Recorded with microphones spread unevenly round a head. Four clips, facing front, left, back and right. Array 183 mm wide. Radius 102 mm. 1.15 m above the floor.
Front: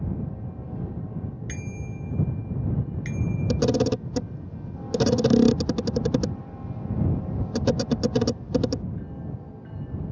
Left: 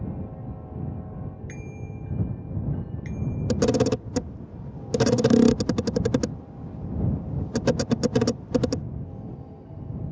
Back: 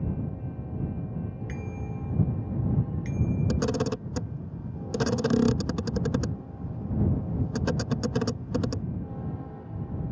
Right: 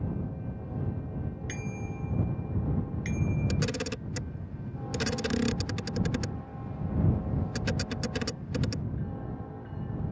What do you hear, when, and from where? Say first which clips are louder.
1.5 s a bicycle bell: right 1 dB, even; 30° right; by 3.6 s 40° right
3.5 s a camera shutter: left 11 dB, front 9 dB; 45° left